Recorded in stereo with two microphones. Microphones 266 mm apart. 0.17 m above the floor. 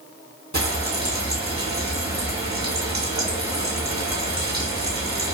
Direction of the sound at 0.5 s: 80° right.